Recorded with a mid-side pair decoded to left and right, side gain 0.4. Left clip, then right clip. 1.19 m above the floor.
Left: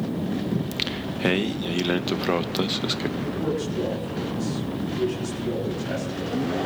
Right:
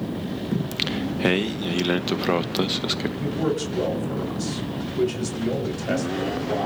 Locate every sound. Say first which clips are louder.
0.5 s singing: right 1 dB; 10° right, 1.0 m
3.2 s a man speaking: right 2 dB; 65° right, 6 m